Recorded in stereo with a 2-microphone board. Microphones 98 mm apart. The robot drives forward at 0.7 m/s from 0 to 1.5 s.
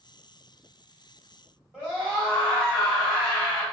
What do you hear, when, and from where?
1.7 s a scream: 5° right (ahead or behind), 1.9 m